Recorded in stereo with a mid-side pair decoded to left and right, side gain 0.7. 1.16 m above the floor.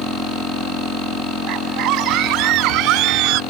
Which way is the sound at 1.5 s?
60° right.